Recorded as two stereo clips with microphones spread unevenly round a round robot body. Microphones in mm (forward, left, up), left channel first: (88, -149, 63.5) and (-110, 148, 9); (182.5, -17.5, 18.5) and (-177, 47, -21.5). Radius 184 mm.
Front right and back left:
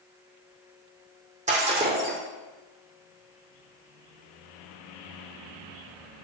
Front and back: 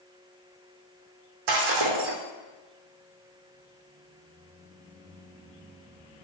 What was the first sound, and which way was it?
Breaking glass, 165° right.